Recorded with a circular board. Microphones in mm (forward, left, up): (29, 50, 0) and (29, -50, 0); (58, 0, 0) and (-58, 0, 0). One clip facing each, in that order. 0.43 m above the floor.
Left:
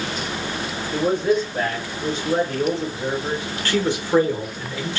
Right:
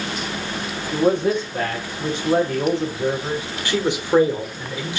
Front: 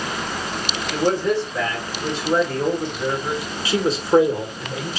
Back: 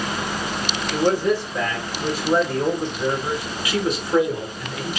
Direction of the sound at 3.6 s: 30° right.